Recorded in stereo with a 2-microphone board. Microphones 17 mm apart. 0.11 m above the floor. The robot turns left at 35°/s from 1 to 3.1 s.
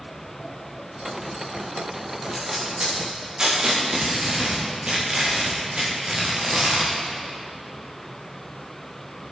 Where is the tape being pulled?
15° right (ahead or behind), 5.5 m; by 6.9 s 45° right (ahead or behind), 5.5 m.